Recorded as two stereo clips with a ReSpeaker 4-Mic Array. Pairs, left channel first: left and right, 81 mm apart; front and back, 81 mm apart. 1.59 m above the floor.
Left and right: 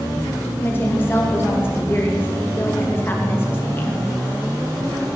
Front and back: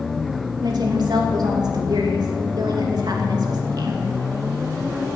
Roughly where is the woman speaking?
Behind left.